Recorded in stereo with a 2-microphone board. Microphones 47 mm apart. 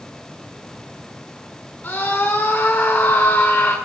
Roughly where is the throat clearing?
No throat clearing in this recording.